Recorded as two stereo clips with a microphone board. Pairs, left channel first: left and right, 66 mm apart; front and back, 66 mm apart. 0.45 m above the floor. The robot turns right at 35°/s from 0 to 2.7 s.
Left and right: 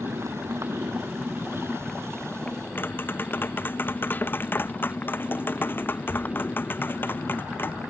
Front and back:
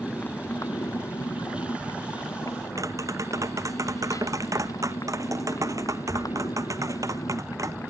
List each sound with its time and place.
0.0 s a motorcycle: 65° right; by 7.9 s 30° left
2.8 s tapping: 145° left